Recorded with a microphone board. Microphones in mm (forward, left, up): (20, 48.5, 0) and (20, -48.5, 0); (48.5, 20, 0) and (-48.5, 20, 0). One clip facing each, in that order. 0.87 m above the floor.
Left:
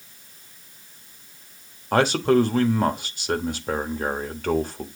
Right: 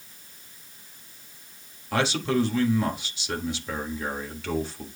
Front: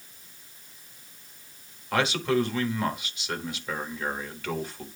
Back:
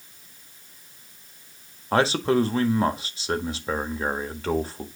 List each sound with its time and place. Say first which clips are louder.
1.9 s a man speaking: left 6 dB, back 4 dB; 125° left, 1.3 m